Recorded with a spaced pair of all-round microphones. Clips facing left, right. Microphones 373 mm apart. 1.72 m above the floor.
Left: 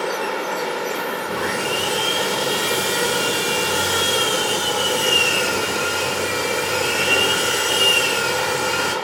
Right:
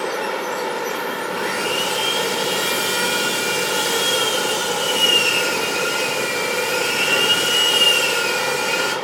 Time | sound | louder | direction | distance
1.3 | sawing | left 1 dB | 65° left (ahead or behind) | 4 m